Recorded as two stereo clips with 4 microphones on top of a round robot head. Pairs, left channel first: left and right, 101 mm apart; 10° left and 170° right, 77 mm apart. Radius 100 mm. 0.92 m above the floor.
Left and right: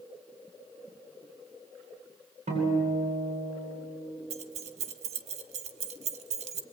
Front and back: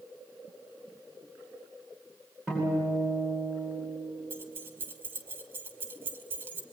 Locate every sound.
2.5 s a guitar: 95° right, 10 m
4.3 s keys jangling: 100° right, 1.1 m